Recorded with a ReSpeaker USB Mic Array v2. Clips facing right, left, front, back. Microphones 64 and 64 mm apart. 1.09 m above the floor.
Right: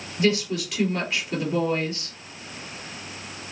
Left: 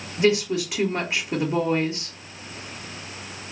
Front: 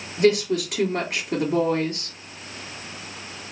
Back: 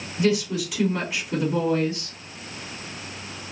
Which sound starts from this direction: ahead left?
A woman speaking, at 0.2 s.